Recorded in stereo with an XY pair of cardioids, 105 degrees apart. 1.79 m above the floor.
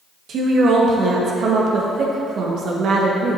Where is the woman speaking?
65° right, 1.8 m.